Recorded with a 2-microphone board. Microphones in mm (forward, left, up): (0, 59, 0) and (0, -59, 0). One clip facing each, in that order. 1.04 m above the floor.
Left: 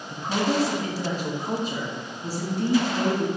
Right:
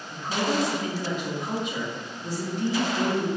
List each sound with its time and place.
0.1 s a woman speaking: 35° left (ahead or behind), 1.2 m